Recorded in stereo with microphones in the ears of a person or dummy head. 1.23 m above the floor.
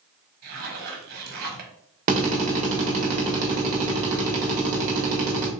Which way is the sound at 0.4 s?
55° right (ahead or behind).